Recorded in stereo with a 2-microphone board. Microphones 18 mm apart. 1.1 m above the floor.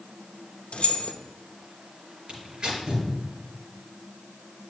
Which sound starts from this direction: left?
Keys jangling, at 0.7 s.